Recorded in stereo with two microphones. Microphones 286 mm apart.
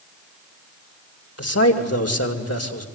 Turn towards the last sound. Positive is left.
turn(degrees=55)  # may be behind; listen again after turning